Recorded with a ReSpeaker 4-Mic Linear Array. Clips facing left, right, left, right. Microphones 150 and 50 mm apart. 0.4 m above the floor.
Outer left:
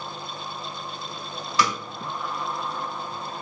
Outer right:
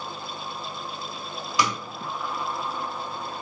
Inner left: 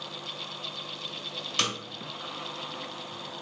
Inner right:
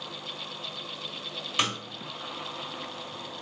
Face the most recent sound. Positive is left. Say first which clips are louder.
# outer left 1 dB, inner right 2 dB
turn(degrees=-15)  # may be behind; listen again after turning